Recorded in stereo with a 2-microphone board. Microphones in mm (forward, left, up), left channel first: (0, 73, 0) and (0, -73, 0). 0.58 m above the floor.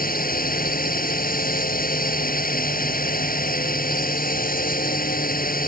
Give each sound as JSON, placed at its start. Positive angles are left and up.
{"t": 0.0, "sound": "a drone", "side_deg": 75}